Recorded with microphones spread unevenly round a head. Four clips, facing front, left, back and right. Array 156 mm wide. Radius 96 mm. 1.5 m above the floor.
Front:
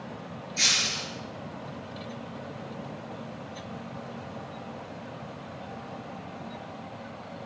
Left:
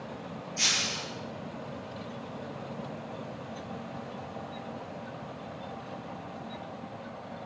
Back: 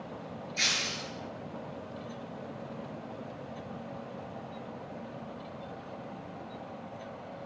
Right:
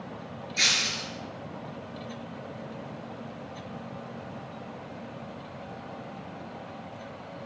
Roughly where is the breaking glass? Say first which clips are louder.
Right 3 dB, front 3 dB; right.